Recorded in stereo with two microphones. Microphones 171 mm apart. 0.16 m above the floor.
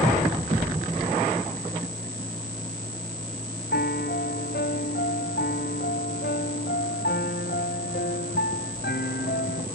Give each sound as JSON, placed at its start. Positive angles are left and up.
{"t": 3.7, "sound": "a piano", "side_deg": 80}